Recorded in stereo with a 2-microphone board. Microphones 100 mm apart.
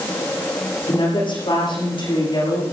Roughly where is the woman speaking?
Left.